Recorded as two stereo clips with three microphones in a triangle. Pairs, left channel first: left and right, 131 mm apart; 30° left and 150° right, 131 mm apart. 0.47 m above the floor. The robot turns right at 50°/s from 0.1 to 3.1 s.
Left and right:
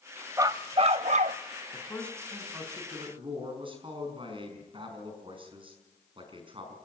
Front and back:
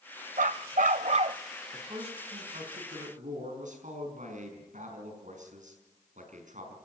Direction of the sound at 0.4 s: 155° right.